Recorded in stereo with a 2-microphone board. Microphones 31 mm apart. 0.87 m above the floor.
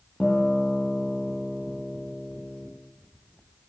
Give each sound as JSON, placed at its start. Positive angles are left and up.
{"t": 0.2, "sound": "a guitar", "side_deg": 10, "distance_m": 5.5}